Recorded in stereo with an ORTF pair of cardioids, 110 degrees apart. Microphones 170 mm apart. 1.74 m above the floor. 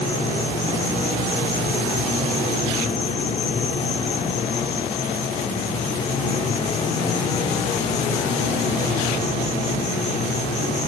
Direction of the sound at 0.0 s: 40° left.